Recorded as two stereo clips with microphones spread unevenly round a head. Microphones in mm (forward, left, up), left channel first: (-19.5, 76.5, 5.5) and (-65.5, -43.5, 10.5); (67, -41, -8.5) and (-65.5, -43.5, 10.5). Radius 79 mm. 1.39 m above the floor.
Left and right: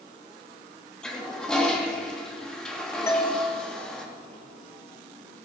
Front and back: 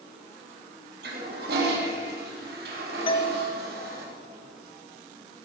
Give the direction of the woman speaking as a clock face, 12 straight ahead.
No woman speaking in this recording.